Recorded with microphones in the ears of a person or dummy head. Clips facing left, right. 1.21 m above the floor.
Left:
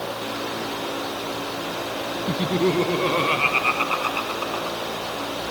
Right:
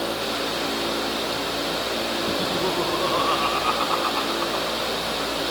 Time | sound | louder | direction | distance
2.3 | laughter | left 7 dB | 35° left (ahead or behind) | ?